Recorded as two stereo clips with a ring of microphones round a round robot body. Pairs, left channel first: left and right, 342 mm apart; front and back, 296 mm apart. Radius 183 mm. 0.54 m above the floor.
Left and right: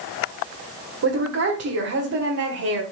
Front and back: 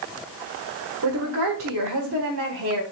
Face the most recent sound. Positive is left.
turn(degrees=-135)